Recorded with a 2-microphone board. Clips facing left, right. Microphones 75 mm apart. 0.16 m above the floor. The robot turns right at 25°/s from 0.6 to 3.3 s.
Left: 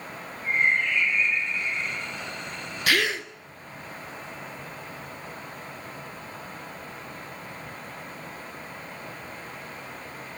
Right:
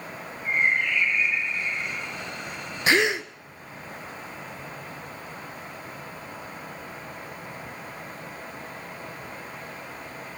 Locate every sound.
0.4 s a bird: 175° left, 7.5 m; by 2.0 s 150° right, 7.5 m
2.9 s a gasp: 25° right (ahead or behind), 0.6 m; by 3.3 s 15° right (ahead or behind), 0.6 m